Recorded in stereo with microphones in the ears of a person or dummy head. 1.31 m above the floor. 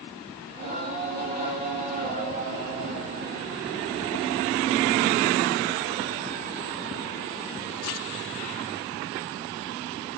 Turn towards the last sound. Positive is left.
turn(degrees=-45)  # may be behind; listen again after turning